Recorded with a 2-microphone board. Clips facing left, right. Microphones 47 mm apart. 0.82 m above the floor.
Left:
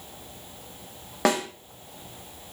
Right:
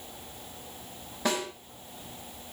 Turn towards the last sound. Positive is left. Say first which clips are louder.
# left 6 dB
turn(degrees=75)  # may be behind; listen again after turning